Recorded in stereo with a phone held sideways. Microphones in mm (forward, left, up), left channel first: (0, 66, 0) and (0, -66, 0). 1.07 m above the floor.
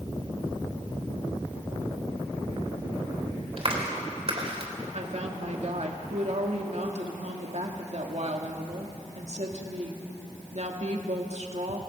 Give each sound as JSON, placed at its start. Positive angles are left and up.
{"t": 3.6, "sound": "a clap", "side_deg": -45, "distance_m": 3.5}
{"t": 4.9, "sound": "a woman speaking", "side_deg": -55, "distance_m": 2.5}